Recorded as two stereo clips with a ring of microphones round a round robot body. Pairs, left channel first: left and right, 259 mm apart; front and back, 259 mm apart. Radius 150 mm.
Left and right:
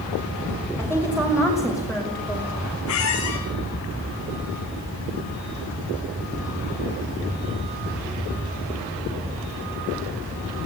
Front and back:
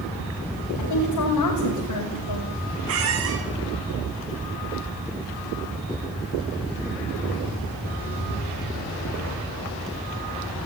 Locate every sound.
0.8 s a woman speaking: 10° right, 6 m; by 2.5 s 5° left, 5.5 m
2.9 s a squeak: 135° left, 3 m